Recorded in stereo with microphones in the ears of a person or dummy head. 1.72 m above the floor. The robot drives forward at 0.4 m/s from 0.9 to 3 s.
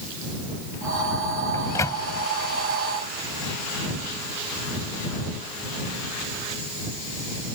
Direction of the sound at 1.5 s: 15° left (ahead or behind).